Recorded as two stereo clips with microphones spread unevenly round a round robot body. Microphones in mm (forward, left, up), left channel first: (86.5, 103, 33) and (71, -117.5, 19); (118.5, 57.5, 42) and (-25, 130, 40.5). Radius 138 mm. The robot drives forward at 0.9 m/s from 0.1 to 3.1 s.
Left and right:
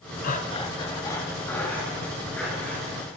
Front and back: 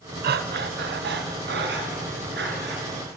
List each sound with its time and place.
0.2 s breathing: 145° left, 0.6 m; by 2.9 s 175° left, 3 m